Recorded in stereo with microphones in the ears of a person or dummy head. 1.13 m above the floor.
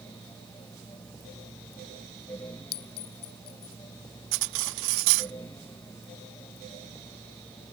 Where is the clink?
55° left (ahead or behind).